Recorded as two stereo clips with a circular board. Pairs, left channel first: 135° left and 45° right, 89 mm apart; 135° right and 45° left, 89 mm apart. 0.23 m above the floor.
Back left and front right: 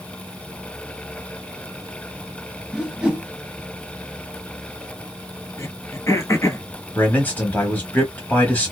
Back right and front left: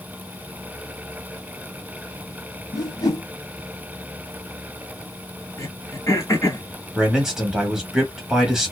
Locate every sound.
2.7 s a whoosh: 120° right, 0.9 m
5.6 s throat clearing: straight behind, 0.9 m
7.0 s a man speaking: 120° left, 1.0 m